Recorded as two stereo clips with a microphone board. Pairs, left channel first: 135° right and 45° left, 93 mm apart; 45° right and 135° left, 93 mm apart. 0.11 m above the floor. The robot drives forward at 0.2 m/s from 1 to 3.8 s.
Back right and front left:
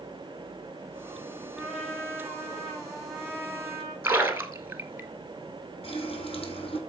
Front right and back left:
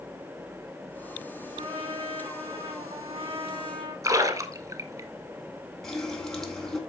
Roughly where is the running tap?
Behind right.